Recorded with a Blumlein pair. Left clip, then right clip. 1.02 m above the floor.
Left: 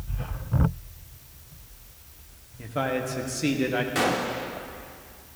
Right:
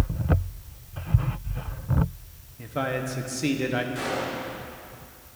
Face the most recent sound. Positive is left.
turn(degrees=60)